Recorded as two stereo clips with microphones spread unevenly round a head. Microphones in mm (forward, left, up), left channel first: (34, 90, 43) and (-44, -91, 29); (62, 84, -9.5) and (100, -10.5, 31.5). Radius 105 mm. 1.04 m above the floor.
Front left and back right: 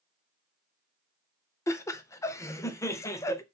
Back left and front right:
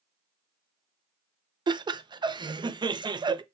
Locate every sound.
1.7 s laughter: 10° right, 0.5 m